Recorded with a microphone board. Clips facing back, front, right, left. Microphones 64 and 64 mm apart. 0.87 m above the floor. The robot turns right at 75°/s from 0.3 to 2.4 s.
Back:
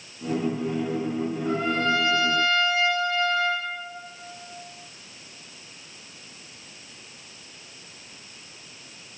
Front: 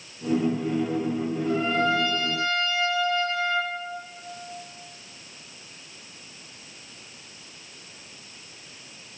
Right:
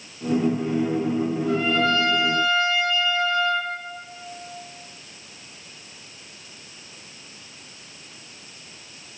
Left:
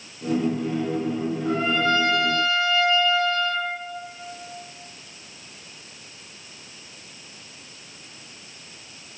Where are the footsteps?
I don't hear footsteps.